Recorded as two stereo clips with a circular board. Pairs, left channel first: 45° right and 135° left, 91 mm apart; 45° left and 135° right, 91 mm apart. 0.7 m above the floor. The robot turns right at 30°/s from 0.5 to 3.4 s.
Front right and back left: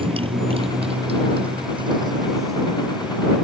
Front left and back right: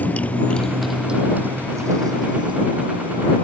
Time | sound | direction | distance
0.0 | a motorcycle | 115° left | ?